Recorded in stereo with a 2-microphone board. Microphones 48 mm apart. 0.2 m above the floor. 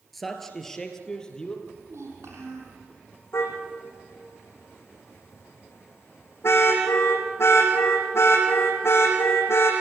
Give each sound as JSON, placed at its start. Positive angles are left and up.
{"t": 0.1, "sound": "a man speaking", "side_deg": 0, "distance_m": 3.0}
{"t": 1.6, "sound": "a child speaking", "side_deg": -80, "distance_m": 6.0}
{"t": 3.3, "sound": "a car horn", "side_deg": 65, "distance_m": 5.5}